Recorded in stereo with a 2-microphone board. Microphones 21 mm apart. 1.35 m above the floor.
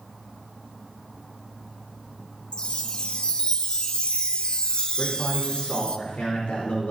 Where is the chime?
40° left (ahead or behind), 0.9 m.